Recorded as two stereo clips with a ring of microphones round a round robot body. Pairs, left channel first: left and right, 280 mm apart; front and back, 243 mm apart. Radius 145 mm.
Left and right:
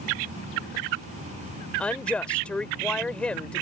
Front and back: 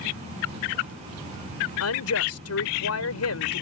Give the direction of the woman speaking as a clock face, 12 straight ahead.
12 o'clock.